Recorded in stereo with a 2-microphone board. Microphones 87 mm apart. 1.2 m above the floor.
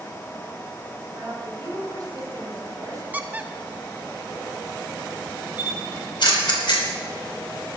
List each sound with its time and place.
1.1 s a woman speaking: 45° right (ahead or behind), 8 m
3.1 s a squeak: 20° right (ahead or behind), 0.9 m
5.6 s a camera shutter: 65° left (ahead or behind), 3 m